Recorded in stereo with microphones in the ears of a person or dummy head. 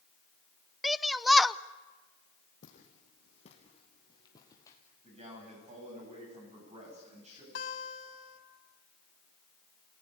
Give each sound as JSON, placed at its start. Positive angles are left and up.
{"t": 0.8, "sound": "a shout", "side_deg": 0, "distance_m": 0.6}
{"t": 2.6, "sound": "footsteps", "side_deg": 45, "distance_m": 4.5}
{"t": 5.0, "sound": "a man speaking", "side_deg": -40, "distance_m": 9.0}
{"t": 7.5, "sound": "a guitar", "side_deg": 60, "distance_m": 2.5}